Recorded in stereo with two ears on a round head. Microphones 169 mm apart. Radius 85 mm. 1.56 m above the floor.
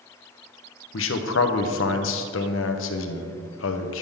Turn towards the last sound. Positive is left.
turn(degrees=75)  # may be behind; listen again after turning